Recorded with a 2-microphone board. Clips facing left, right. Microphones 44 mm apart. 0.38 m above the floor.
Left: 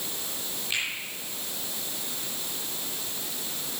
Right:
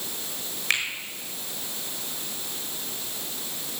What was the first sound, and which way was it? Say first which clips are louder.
A finger snap: right 5 dB; 80° right.